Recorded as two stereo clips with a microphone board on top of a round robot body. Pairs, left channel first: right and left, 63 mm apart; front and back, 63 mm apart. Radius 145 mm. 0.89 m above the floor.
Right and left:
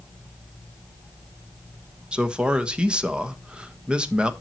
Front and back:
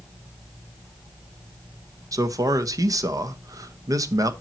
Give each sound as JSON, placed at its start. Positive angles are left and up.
{"t": 2.1, "sound": "a man speaking", "azimuth_deg": 165, "distance_m": 1.5}